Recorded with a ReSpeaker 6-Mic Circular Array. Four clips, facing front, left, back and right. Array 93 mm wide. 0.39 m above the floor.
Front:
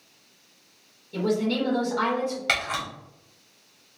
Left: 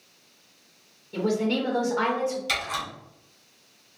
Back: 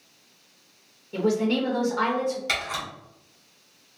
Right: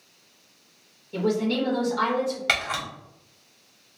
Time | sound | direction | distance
1.1 | a woman speaking | 175° right | 1.1 m
2.5 | a camera shutter | 60° right | 1.2 m